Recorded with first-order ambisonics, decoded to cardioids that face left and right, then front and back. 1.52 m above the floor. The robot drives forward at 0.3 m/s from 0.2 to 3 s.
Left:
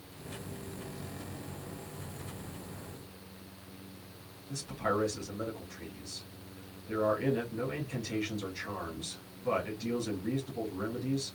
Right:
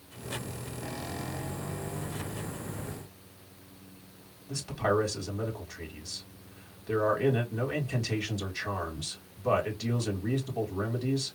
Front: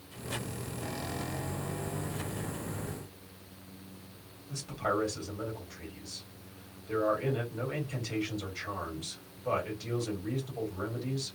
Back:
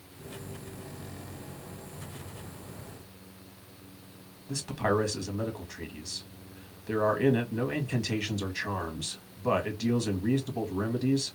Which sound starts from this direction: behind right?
A man speaking, at 4.5 s.